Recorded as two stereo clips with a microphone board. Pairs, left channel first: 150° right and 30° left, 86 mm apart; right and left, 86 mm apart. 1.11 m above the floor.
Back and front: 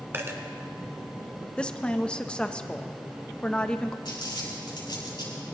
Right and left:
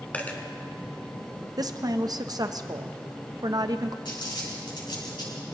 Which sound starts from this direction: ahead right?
A dropped coin, at 0.1 s.